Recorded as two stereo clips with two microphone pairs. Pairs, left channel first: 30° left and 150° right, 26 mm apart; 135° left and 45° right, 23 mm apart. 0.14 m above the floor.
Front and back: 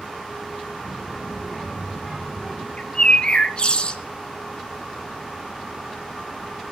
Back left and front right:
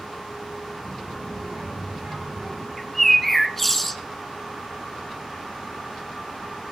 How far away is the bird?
About 1.2 m.